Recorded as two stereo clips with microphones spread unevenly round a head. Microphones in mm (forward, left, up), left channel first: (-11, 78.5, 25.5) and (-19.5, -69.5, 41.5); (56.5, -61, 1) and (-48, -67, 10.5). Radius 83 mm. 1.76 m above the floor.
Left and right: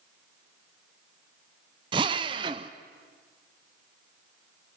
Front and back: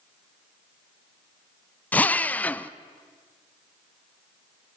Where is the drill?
70° right, 0.6 m.